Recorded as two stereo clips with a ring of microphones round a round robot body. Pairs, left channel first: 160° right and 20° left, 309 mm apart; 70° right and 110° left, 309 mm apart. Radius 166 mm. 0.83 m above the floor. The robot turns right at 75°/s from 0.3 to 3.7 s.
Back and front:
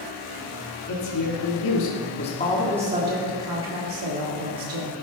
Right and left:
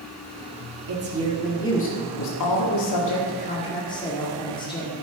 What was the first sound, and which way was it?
A woman speaking, 155° left.